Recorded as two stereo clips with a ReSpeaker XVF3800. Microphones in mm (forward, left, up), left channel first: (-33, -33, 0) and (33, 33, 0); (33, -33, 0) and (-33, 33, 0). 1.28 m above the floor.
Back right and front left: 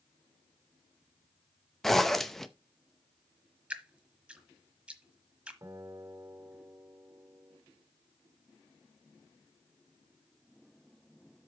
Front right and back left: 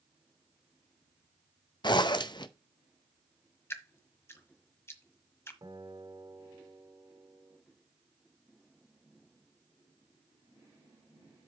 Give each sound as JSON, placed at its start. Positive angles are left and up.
{"t": 1.8, "sound": "a zipper", "azimuth_deg": -50, "distance_m": 0.7}
{"t": 3.7, "sound": "dripping", "azimuth_deg": -20, "distance_m": 1.2}
{"t": 5.6, "sound": "a guitar", "azimuth_deg": 100, "distance_m": 2.0}